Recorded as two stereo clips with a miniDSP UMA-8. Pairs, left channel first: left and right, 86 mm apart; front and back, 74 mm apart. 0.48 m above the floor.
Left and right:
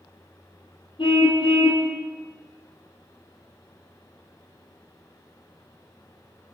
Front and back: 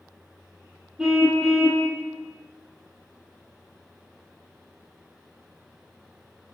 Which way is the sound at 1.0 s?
95° left.